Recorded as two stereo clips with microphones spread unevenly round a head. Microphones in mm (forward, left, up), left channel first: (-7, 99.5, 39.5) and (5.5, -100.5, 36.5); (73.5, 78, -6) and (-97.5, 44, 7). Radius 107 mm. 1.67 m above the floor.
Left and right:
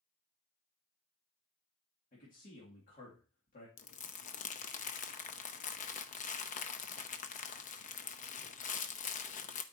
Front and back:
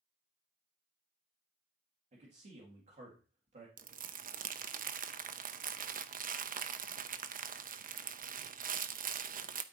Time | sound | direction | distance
2.1 | a man speaking | 145° left | 2 m
3.8 | crumpling | 150° left | 0.7 m